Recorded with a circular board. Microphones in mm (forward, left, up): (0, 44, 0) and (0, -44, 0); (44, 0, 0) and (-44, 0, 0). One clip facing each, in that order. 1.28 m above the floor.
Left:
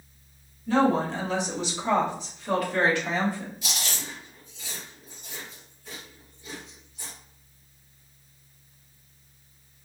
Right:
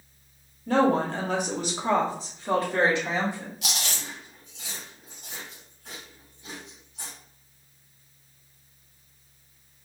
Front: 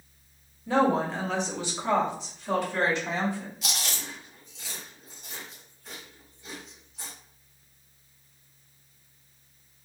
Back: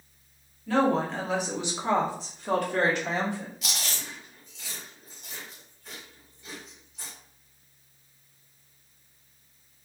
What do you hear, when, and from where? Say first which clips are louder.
0.7 s a woman speaking: right 1 dB, even; 65° right, 0.8 m; by 3.5 s 160° right, 1.3 m
3.6 s chewing: right 1 dB, front 1 dB; 90° right, 1.4 m